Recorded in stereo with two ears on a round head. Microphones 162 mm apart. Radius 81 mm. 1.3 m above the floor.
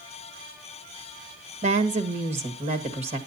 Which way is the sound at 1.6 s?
35° right (ahead or behind).